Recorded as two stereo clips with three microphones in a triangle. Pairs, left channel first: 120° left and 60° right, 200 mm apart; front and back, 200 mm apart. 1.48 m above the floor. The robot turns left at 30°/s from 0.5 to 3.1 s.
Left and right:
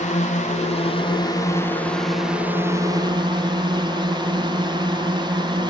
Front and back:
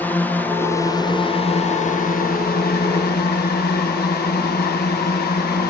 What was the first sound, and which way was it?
A drone, 80° left.